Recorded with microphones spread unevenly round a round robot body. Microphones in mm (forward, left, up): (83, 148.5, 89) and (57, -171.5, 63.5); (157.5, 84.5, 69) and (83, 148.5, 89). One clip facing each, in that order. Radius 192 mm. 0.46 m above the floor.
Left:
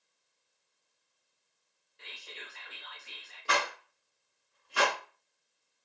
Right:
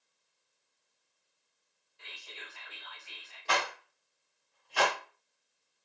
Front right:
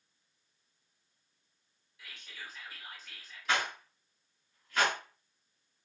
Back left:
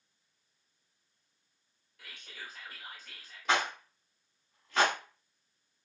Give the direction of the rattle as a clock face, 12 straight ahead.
7 o'clock.